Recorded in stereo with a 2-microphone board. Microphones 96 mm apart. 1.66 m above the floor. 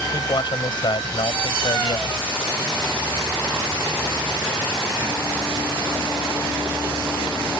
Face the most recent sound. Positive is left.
turn(degrees=60)  # may be behind; listen again after turning